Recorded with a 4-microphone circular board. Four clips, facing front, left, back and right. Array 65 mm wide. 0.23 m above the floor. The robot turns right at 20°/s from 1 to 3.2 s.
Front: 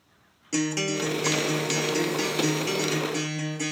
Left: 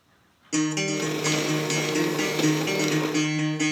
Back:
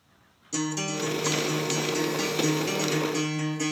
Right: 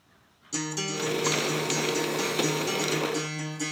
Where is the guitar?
40° left, 0.7 m; by 3.7 s 85° left, 0.7 m.